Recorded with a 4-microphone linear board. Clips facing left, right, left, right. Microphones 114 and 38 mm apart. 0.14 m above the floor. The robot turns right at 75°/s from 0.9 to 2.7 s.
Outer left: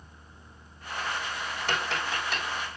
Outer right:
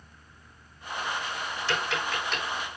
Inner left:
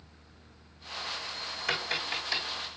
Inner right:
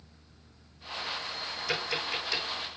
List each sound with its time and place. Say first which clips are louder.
1.7 s tapping: outer right 1 dB, even; 55° left (ahead or behind), 5.5 m; by 2.4 s centre (ahead or behind), 5.5 m